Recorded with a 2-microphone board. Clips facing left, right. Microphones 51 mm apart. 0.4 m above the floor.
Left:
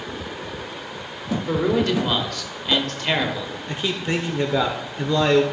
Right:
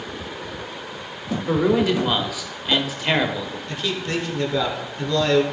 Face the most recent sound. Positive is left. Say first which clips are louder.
# left 2 dB
turn(degrees=20)  # may be behind; listen again after turning